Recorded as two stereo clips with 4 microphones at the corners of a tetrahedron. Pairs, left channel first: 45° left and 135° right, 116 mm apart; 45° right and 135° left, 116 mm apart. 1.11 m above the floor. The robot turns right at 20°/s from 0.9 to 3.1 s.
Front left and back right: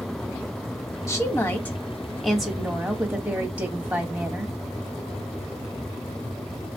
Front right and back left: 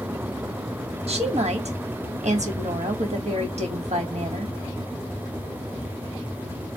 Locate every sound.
1.1 s a woman speaking: 105° left, 1.4 m; by 4.5 s 145° left, 1.4 m